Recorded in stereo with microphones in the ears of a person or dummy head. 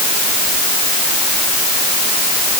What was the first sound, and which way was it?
Only background noise.